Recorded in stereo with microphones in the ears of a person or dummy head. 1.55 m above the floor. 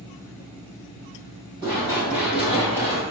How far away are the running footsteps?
About 1.7 m.